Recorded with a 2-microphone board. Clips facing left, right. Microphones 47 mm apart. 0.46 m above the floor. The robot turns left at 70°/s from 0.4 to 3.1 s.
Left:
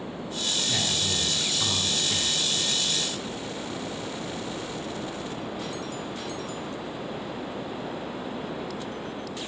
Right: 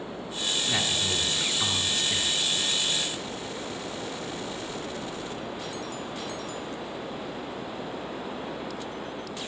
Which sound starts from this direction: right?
A man speaking, at 0.7 s.